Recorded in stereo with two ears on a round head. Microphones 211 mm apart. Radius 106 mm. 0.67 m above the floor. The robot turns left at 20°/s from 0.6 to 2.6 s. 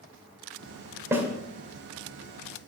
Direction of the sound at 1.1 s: 10° right (ahead or behind).